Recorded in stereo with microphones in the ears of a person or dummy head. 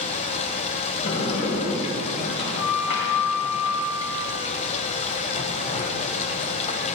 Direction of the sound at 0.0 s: 30° left (ahead or behind).